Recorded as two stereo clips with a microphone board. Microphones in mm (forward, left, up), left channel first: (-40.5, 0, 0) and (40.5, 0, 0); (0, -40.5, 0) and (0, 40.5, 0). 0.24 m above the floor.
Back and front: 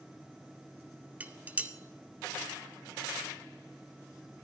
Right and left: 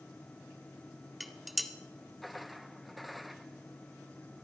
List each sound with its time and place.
1.2 s dishes clattering: 5° left, 0.7 m